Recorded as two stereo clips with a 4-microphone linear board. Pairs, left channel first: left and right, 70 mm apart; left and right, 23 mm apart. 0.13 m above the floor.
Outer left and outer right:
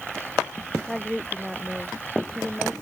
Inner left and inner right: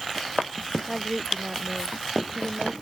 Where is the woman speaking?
5° right (ahead or behind).